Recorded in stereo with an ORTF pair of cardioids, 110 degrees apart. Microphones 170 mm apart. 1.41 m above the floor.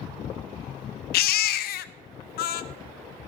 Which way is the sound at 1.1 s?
70° left.